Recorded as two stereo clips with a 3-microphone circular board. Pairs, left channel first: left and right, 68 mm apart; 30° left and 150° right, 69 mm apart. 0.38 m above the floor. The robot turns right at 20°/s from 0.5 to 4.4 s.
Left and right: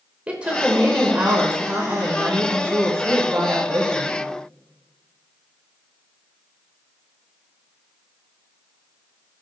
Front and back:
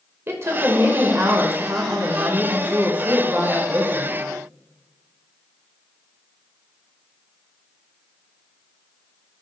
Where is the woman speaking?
150° right, 0.9 m; by 4.2 s 75° right, 0.9 m.